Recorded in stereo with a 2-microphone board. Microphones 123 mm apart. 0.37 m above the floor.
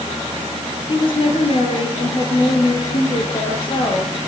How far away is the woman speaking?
About 9 m.